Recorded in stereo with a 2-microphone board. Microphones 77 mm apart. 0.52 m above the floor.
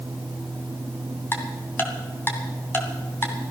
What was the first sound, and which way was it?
Ticking, 25° left (ahead or behind).